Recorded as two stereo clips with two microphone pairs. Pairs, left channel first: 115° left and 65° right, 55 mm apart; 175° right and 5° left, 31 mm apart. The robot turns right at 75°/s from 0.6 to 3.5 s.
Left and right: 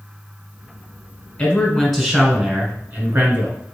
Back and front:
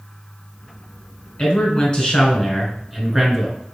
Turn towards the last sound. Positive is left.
turn(degrees=-45)